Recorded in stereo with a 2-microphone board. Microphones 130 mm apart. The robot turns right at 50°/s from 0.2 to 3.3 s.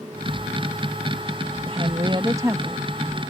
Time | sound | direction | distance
1.7 | a woman speaking | 70° right | ?